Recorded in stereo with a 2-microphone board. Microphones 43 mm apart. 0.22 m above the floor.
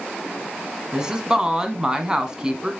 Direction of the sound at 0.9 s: 20° right (ahead or behind).